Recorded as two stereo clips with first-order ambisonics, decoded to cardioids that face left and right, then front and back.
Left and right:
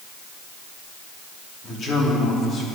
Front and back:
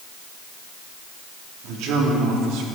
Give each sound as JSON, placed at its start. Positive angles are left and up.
{"t": 1.6, "sound": "a man speaking", "azimuth_deg": 155, "distance_m": 2.5}